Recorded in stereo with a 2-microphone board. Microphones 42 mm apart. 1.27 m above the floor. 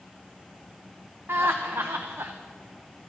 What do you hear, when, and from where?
1.3 s laughter: 70° right (ahead or behind), 0.7 m